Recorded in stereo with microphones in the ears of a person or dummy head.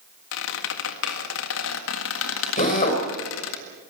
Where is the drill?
40° left (ahead or behind), 4.5 m.